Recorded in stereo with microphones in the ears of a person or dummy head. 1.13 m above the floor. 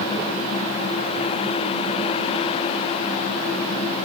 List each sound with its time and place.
Only background noise.